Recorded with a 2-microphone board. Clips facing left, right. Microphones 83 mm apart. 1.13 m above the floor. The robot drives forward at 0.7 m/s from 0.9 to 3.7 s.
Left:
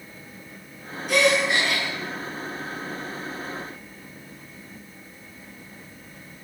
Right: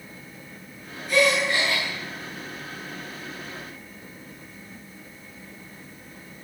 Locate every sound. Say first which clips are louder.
1.1 s a gasp: left 1 dB; 70° left (ahead or behind), 9 m; by 1.9 s 75° left (ahead or behind), 9 m